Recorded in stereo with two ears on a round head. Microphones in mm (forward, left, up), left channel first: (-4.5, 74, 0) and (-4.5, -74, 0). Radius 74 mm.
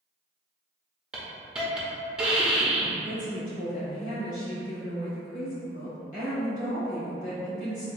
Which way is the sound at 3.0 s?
50° left (ahead or behind).